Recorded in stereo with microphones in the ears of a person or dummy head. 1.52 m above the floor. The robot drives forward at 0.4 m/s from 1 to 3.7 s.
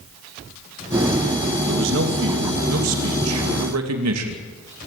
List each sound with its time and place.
1.7 s a man speaking: 70° right (ahead or behind), 2.5 m; by 4.4 s 85° right, 2.5 m